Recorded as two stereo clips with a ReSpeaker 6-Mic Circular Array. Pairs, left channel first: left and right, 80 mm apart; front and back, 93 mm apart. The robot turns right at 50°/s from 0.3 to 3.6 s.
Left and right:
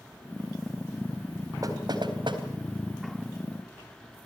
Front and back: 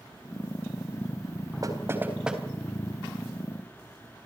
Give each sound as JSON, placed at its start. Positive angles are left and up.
{"t": 1.6, "sound": "knocking", "azimuth_deg": -130, "distance_m": 3.5}